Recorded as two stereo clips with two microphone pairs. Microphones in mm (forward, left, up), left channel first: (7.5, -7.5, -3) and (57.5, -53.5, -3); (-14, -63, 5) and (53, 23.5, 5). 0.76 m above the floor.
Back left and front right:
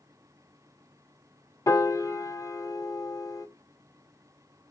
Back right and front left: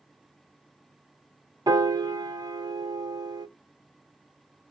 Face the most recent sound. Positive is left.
turn(degrees=100)